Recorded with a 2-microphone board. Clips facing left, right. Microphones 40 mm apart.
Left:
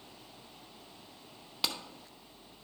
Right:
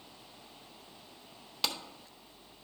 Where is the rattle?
No rattle in this recording.